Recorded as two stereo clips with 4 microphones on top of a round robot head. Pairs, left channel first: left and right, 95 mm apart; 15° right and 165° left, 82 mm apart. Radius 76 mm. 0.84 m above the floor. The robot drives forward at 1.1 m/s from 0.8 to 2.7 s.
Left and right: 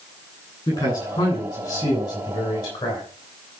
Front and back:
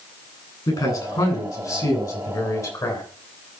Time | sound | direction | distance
0.7 | a man speaking | 25° left | 10 m